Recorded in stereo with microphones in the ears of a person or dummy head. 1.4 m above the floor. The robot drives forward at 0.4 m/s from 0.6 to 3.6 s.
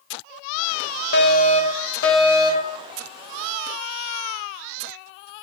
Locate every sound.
1.1 s a fire alarm: 75° left (ahead or behind), 2.5 m; by 2.8 s 70° left (ahead or behind), 3 m